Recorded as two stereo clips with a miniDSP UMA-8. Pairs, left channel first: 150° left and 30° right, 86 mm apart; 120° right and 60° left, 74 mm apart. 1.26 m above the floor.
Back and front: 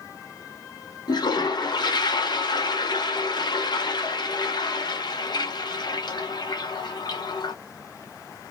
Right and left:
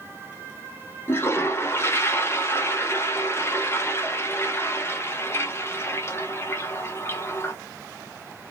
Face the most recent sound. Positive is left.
turn(degrees=-175)